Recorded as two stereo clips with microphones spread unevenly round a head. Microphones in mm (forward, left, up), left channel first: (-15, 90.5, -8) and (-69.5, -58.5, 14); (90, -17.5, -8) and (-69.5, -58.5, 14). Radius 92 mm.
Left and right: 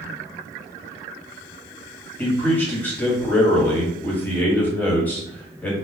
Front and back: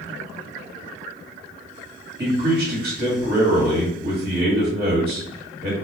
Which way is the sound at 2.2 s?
150° left.